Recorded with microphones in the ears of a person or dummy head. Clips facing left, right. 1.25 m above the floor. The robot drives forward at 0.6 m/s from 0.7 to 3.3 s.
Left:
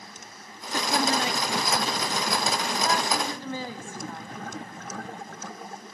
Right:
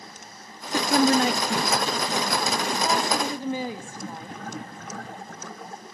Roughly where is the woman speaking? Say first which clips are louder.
Right 6 dB; right.